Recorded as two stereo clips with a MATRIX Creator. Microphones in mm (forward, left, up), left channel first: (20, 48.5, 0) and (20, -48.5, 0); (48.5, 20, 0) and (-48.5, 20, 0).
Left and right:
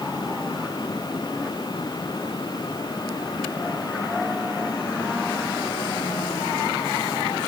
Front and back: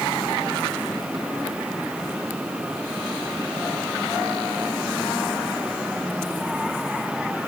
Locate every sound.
Only background noise.